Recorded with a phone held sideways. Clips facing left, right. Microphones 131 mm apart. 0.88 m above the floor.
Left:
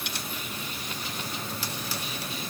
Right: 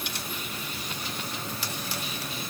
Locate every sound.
Only background noise.